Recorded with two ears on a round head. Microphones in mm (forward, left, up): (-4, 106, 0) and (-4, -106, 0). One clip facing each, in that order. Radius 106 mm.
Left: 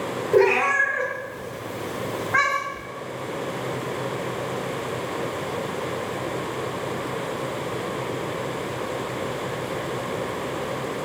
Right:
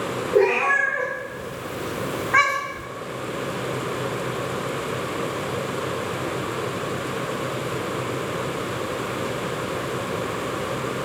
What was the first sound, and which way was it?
A cat meowing, 50° left (ahead or behind).